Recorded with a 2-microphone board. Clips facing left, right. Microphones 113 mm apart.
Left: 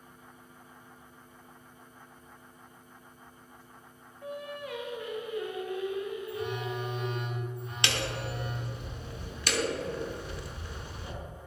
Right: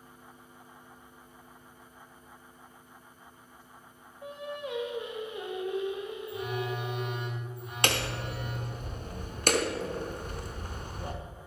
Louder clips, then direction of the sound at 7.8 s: Right 2 dB; 45° right (ahead or behind).